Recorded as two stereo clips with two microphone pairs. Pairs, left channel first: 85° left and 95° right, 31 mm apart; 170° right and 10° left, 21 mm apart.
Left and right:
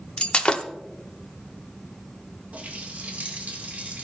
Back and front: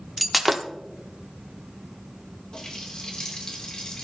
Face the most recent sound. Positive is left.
turn(degrees=-130)